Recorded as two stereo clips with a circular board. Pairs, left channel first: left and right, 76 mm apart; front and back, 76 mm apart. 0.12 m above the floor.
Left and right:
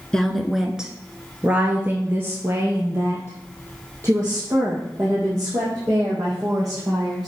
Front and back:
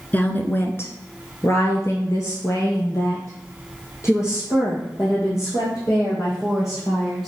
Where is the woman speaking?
25° left, 1.1 m; by 7.3 s 50° right, 5.5 m.